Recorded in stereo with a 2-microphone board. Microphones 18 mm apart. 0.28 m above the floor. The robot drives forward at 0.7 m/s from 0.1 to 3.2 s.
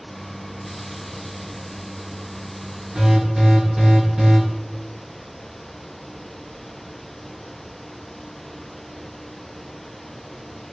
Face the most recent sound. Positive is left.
turn(degrees=-30)  # may be behind; listen again after turning